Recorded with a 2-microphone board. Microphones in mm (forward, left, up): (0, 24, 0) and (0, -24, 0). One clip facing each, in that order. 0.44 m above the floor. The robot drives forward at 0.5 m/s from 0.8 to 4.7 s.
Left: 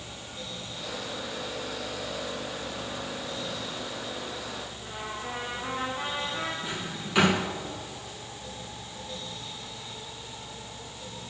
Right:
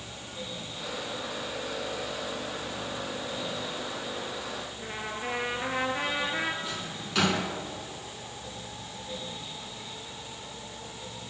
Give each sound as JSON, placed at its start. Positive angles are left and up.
{"t": 4.8, "sound": "a trumpet", "side_deg": -85, "distance_m": 4.0}
{"t": 6.6, "sound": "a drawer", "side_deg": 15, "distance_m": 3.0}